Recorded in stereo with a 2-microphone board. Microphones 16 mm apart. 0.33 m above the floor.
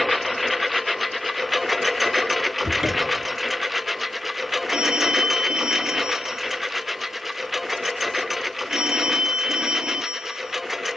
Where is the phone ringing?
80° right.